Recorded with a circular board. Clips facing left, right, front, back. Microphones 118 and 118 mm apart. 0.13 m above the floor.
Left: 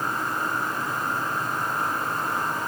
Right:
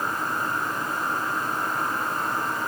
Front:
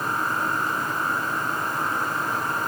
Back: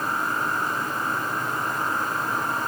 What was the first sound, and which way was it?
Only background noise.